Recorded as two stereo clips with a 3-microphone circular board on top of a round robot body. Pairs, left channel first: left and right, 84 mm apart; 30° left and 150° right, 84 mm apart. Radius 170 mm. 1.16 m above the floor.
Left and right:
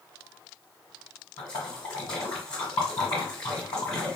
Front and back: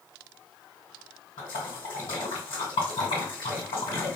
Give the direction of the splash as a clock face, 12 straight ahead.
11 o'clock.